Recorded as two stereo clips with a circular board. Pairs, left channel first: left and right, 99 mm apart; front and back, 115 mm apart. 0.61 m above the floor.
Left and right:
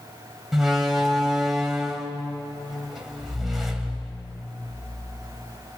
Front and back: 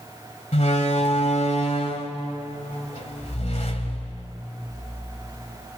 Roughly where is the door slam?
Ahead.